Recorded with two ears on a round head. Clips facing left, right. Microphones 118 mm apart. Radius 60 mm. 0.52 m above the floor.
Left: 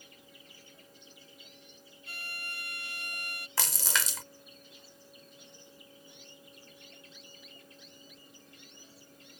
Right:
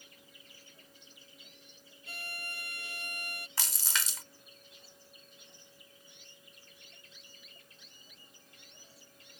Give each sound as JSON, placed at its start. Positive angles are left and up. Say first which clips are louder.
{"t": 2.1, "sound": "a violin", "louder": "even", "side_deg": -75}
{"t": 3.6, "sound": "a splash", "louder": "left 6 dB", "side_deg": 60}